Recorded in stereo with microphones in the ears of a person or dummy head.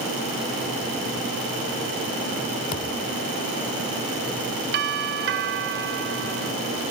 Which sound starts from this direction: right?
A doorbell, at 4.7 s.